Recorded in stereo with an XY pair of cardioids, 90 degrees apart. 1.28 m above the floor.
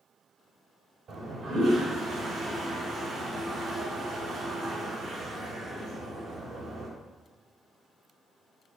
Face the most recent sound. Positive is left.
turn(degrees=-65)